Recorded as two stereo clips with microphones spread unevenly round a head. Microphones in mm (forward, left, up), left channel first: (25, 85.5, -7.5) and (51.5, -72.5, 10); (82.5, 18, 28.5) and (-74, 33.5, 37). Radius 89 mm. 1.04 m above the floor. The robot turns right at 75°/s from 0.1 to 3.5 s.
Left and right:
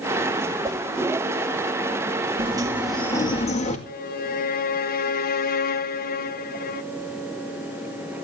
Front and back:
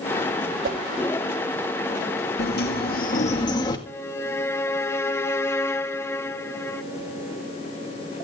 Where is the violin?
70° left, 0.8 m.